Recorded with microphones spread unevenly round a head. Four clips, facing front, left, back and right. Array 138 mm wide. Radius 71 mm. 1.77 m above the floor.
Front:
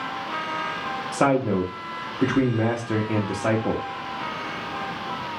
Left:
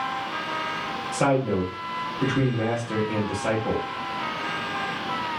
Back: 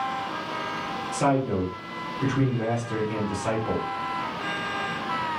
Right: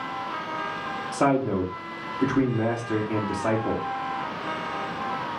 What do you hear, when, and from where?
1.1 s a man speaking: straight ahead, 0.9 m